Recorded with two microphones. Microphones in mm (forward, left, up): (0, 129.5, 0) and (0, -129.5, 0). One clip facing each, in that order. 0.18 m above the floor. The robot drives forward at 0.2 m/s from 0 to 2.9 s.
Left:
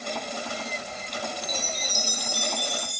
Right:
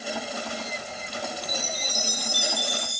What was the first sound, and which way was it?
A chime, 70° left (ahead or behind).